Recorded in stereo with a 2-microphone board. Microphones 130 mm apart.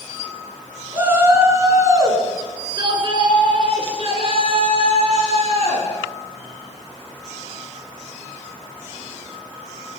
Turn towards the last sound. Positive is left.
turn(degrees=-50)  # may be behind; listen again after turning